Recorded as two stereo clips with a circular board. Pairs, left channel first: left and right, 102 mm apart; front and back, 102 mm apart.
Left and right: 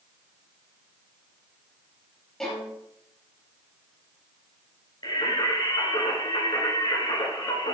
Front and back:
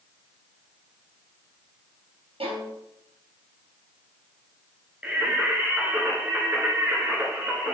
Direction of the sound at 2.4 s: 175° left.